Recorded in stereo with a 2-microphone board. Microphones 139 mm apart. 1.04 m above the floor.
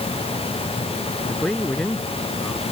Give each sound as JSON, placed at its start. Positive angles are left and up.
{"t": 1.3, "sound": "a man speaking", "side_deg": 5}